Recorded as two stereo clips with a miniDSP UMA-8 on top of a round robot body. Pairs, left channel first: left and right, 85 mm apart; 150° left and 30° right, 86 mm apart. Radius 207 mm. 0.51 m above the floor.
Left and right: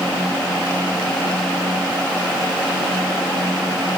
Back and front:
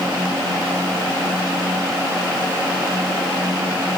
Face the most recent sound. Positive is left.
No sound to turn to.